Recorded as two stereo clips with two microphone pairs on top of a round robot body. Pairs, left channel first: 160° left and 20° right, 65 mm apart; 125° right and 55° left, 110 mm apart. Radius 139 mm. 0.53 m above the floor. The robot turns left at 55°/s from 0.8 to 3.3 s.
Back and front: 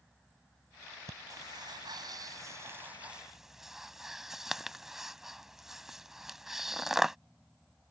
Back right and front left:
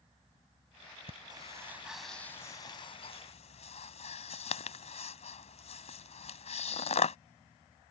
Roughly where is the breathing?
Ahead.